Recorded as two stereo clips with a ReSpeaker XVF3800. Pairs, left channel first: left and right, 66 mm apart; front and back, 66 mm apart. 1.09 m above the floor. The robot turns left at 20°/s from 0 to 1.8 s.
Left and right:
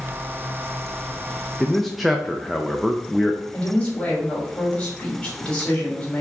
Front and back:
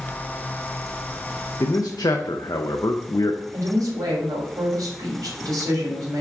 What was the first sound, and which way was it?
A man speaking, 5° left.